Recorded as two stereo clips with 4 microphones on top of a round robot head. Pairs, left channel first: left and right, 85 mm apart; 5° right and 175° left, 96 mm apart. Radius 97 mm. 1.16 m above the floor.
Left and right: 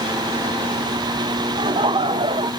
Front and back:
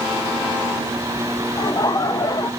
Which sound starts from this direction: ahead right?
Laughter, at 1.6 s.